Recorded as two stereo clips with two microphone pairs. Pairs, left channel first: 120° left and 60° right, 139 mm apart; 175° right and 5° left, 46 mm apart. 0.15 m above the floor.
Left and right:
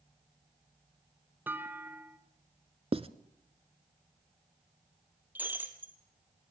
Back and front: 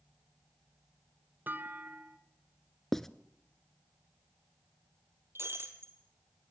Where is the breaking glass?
20° left, 2.5 m.